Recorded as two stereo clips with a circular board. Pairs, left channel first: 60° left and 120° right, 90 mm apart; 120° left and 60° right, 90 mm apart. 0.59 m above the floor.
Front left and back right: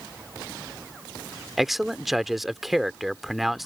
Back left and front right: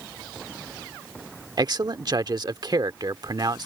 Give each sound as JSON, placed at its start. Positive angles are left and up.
{"t": 1.6, "sound": "a man speaking", "azimuth_deg": -35}